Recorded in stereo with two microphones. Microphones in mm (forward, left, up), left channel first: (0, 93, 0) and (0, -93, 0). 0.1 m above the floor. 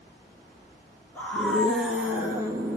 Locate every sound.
1.1 s a scream: 10° left (ahead or behind), 1.3 m; by 2.8 s 20° right (ahead or behind), 1.4 m